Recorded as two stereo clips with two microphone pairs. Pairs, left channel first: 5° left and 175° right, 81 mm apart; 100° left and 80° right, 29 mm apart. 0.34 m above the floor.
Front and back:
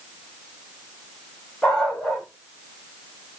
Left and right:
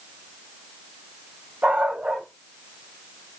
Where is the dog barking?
80° right, 5 m.